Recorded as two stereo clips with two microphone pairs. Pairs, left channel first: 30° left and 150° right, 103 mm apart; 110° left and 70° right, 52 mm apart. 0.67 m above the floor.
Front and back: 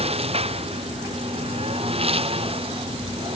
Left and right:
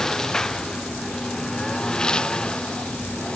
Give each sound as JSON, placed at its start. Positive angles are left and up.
{"t": 0.0, "sound": "a lawn mower", "azimuth_deg": -170}